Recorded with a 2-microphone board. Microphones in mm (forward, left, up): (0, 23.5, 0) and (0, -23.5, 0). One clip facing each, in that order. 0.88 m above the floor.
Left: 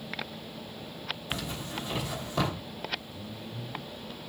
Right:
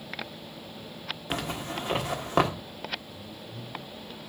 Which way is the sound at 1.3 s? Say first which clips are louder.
Right 5 dB; 55° right (ahead or behind).